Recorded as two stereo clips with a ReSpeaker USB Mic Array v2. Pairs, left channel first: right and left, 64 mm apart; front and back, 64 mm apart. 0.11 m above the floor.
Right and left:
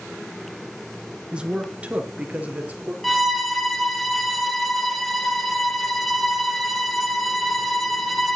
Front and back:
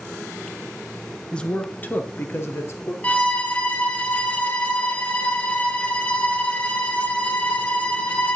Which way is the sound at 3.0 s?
10° right.